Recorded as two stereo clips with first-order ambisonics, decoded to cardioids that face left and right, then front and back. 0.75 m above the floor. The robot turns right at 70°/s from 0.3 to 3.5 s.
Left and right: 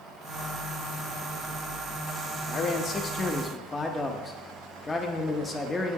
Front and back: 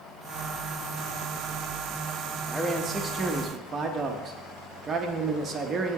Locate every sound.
2.5 s a man speaking: 80° left, 0.6 m; by 6.0 s 150° left, 0.6 m